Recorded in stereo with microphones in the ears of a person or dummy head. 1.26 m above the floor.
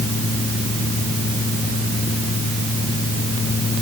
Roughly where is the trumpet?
No trumpet in this recording.